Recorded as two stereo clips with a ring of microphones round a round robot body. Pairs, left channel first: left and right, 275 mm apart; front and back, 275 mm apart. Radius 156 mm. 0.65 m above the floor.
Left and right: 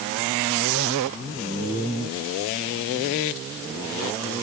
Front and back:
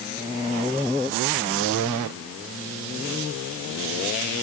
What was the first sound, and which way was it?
Only background noise.